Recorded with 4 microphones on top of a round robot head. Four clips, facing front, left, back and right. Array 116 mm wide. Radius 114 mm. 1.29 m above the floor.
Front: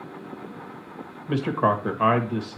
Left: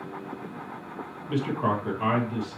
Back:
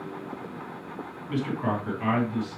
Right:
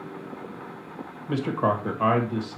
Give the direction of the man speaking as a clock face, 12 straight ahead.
1 o'clock.